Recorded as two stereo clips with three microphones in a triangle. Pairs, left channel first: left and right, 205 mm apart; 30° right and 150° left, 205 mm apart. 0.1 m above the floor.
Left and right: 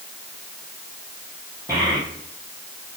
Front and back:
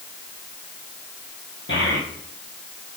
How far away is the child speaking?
About 3 m.